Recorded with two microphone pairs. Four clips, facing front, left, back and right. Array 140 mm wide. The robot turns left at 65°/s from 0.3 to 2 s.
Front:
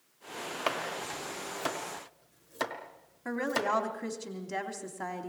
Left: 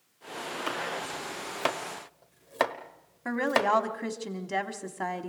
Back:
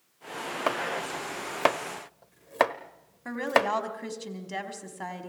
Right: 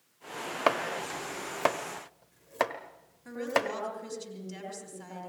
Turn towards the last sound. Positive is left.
turn(degrees=100)